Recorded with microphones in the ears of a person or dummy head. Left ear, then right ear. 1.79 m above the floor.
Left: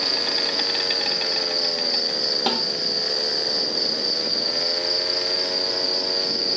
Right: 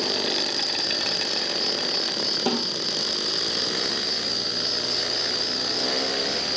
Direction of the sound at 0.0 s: 25° left (ahead or behind).